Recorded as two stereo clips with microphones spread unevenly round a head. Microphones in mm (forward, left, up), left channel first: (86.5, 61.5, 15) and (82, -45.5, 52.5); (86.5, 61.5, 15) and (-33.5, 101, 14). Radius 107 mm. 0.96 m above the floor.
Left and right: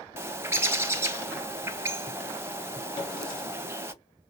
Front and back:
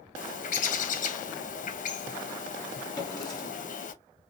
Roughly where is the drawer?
Ahead left.